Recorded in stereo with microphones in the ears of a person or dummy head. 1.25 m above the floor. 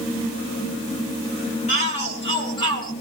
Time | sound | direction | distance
1.7 | a shout | 35° left (ahead or behind) | 6.5 m